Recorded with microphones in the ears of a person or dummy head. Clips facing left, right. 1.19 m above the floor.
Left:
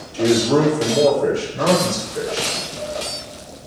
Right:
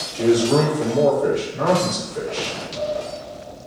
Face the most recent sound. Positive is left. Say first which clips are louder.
# even
turn(degrees=5)  # may be behind; listen again after turning